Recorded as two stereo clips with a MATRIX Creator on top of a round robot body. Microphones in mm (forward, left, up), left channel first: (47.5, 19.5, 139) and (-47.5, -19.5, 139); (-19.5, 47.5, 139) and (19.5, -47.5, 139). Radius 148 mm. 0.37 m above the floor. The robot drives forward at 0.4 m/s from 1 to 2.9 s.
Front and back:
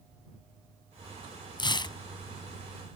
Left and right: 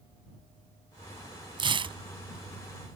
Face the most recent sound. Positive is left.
turn(degrees=-30)